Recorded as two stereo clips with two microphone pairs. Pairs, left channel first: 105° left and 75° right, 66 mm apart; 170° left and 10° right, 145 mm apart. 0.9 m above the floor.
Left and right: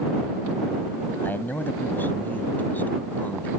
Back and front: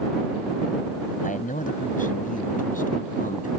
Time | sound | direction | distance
1.2 | a man speaking | 160° left | ?